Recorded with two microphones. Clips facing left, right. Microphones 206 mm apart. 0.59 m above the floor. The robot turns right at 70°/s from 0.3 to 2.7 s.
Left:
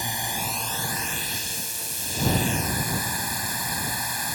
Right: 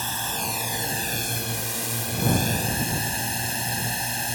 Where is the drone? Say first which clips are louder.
Even; 165° left; by 4.3 s 30° right.